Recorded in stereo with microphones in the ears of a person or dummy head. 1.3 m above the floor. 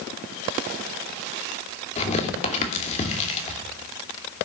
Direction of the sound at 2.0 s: 30° left (ahead or behind).